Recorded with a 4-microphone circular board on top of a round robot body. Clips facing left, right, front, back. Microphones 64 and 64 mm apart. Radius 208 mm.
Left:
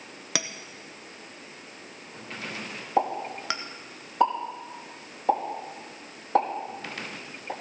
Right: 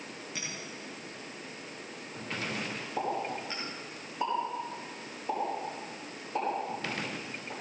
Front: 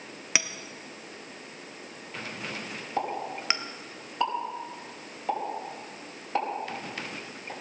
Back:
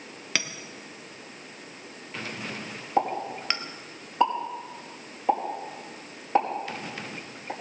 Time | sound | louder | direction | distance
0.3 | a clink | left 8 dB, even | 80° left | 0.9 m
3.0 | a pop | left 7 dB, back 5 dB | 110° left | 5 m